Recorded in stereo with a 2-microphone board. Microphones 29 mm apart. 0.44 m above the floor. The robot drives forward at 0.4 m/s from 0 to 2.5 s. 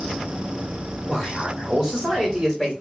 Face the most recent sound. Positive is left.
turn(degrees=-10)  # may be behind; listen again after turning